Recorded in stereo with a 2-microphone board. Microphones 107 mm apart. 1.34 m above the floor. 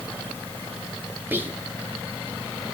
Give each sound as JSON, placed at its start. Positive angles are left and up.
{"t": 1.3, "sound": "whispering", "side_deg": -20, "distance_m": 1.9}